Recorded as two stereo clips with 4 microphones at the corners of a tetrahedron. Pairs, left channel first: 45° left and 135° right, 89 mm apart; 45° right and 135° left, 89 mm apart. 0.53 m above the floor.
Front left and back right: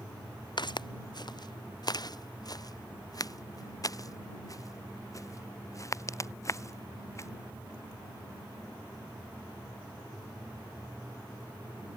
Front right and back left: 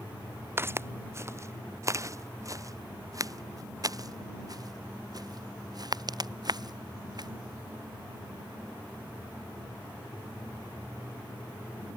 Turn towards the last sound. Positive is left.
turn(degrees=100)